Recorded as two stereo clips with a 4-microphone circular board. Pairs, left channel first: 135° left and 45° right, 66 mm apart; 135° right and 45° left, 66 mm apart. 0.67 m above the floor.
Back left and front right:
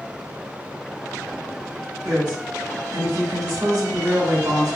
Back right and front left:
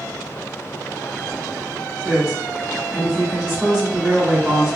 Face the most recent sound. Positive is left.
turn(degrees=-30)